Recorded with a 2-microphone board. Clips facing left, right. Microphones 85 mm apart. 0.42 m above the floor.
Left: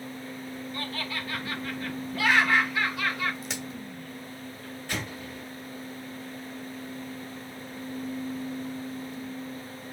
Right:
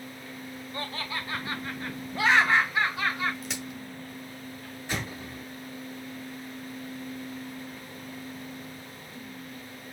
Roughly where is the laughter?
Right.